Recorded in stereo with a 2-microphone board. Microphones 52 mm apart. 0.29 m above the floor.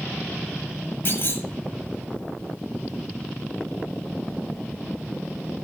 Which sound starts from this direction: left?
A clunk, at 1.1 s.